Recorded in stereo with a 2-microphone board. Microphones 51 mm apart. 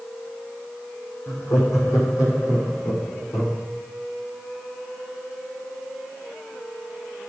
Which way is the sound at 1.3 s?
70° left (ahead or behind).